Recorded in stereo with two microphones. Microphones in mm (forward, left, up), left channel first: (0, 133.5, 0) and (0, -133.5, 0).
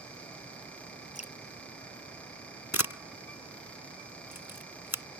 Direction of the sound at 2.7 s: 90° left.